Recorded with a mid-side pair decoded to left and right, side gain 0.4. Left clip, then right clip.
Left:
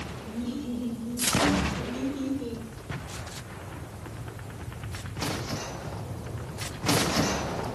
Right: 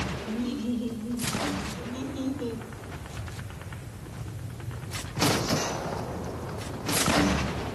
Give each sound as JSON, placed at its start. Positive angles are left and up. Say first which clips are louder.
{"t": 0.2, "sound": "laughter", "louder": "right 3 dB", "azimuth_deg": -50, "distance_m": 5.5}